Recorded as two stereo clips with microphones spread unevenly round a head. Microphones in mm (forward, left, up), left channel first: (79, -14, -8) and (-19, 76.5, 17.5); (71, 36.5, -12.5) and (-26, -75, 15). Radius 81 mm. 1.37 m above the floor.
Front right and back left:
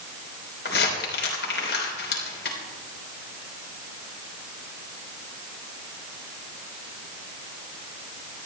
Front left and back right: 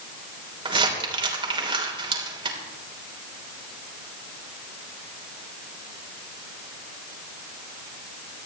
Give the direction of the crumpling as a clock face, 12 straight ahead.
3 o'clock.